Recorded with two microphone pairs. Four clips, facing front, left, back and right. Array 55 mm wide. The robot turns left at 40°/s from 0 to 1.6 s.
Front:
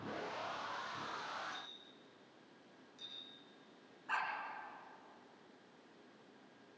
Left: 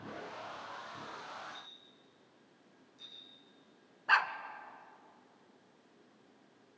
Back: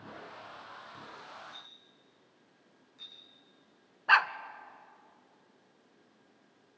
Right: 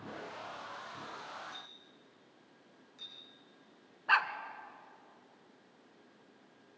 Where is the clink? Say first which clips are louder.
Right 1 dB, front 2 dB; 110° right, 9 m.